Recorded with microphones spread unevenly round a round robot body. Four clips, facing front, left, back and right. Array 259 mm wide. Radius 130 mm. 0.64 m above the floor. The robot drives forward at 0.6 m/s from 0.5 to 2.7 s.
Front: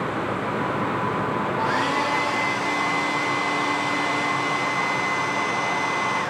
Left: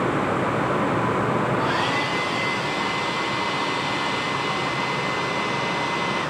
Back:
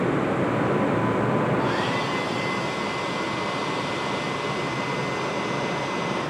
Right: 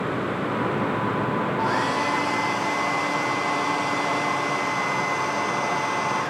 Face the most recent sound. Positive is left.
turn(degrees=-35)